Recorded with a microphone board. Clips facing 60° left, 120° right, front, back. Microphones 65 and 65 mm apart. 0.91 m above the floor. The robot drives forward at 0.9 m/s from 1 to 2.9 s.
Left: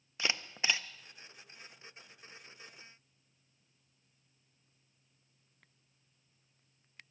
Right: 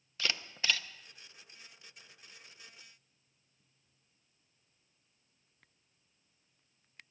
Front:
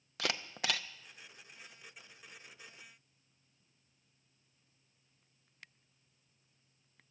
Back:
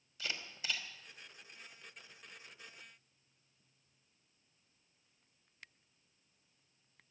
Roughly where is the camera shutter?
Ahead.